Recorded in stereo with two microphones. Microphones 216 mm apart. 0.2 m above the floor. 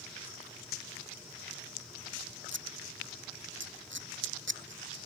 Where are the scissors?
60° right (ahead or behind).